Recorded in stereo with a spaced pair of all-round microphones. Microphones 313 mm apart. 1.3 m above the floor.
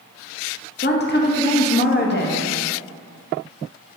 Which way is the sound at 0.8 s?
35° left (ahead or behind).